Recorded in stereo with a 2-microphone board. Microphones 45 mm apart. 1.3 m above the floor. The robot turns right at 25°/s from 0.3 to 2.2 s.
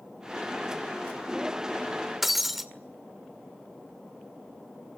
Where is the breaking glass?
5° right (ahead or behind), 1.8 m.